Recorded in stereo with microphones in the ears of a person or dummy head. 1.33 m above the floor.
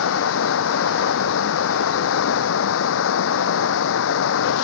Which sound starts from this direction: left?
Running water, at 0.0 s.